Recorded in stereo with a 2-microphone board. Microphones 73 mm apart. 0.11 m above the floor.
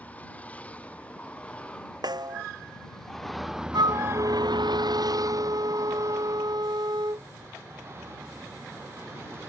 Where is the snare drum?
70° right (ahead or behind).